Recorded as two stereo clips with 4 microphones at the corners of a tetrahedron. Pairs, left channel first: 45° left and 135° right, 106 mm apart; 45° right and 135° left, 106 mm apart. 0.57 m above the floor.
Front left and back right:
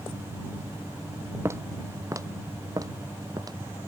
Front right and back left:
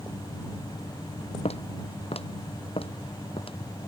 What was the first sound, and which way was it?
Footsteps, 70° right.